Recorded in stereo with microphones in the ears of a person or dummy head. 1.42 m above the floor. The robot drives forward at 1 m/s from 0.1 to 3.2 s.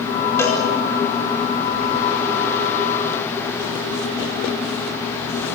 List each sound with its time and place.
0.4 s a cowbell: 15° left (ahead or behind), 5 m